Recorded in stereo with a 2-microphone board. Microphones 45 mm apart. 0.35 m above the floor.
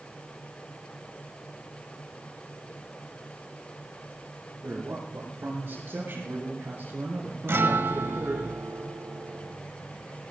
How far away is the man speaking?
About 5.5 m.